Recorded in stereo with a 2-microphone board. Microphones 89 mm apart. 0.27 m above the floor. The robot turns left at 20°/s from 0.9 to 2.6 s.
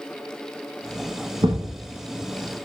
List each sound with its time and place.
1.4 s a thud: 70° right (ahead or behind), 0.8 m; by 1.7 s 65° right (ahead or behind), 0.8 m